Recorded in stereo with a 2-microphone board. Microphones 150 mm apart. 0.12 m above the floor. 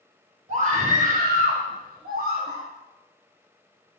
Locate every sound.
0.5 s a scream: 50° right (ahead or behind), 3 m; by 2.6 s 75° right (ahead or behind), 4 m